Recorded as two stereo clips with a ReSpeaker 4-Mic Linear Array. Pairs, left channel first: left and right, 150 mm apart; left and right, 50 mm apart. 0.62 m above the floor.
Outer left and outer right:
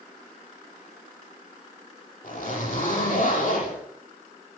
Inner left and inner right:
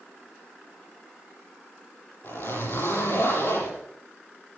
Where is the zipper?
60° left (ahead or behind), 8 m.